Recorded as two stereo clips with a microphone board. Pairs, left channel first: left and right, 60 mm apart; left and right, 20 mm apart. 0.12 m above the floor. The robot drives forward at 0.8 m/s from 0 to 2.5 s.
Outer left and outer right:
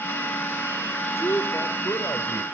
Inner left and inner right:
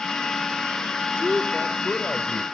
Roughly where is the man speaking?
Left.